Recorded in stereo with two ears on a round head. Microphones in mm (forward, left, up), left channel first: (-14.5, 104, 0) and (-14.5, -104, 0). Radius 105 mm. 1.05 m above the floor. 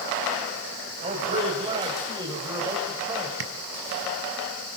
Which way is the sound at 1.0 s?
25° right (ahead or behind).